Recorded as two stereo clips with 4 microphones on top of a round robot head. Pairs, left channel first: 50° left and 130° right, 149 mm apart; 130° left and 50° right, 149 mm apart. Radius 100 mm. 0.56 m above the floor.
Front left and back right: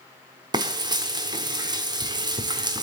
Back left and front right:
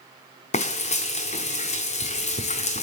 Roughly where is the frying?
Behind.